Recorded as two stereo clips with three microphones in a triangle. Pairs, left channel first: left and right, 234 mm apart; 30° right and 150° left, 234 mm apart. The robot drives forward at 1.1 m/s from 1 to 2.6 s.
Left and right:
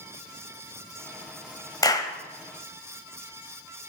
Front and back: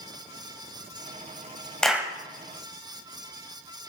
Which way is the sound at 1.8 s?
50° left.